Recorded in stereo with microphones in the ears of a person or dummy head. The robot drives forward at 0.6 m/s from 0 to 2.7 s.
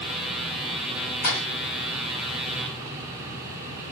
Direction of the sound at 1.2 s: 50° left (ahead or behind).